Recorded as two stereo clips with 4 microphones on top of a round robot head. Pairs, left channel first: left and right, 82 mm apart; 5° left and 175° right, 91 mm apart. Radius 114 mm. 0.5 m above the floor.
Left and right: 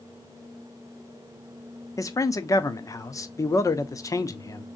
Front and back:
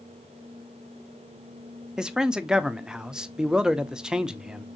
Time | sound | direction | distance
2.0 | a man speaking | 105° left | 0.8 m